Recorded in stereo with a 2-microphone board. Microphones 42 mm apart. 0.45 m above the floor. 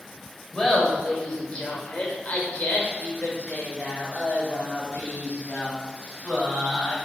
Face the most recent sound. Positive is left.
turn(degrees=50)  # may be behind; listen again after turning